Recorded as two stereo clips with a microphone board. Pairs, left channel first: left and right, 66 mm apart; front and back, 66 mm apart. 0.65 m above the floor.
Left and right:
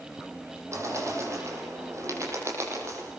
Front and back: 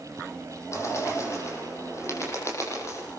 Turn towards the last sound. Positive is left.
turn(degrees=-45)